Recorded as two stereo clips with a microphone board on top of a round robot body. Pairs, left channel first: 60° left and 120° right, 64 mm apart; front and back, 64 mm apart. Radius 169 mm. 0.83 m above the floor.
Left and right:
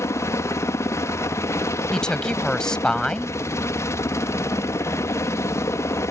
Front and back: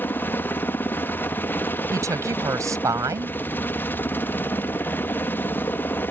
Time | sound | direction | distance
0.0 | a helicopter | 45° left | ?
1.9 | a woman speaking | 140° left | ?